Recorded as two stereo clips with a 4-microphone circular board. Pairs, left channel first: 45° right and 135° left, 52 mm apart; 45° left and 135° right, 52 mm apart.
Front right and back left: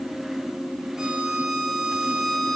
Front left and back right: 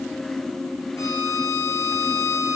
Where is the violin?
55° left, 3 m.